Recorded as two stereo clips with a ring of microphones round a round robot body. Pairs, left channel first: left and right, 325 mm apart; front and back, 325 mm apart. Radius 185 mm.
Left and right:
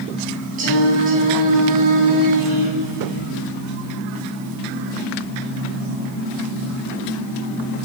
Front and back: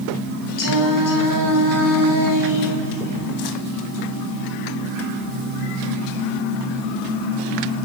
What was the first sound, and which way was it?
Singing, 20° right.